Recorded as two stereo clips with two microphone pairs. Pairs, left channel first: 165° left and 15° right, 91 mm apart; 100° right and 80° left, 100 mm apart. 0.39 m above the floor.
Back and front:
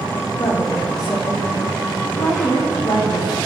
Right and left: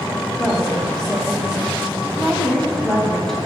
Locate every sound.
0.4 s a woman speaking: 170° left, 2 m